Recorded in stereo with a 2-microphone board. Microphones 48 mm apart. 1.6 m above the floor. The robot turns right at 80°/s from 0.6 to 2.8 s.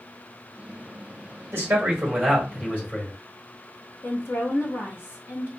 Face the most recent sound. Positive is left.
turn(degrees=65)  # may be behind; listen again after turning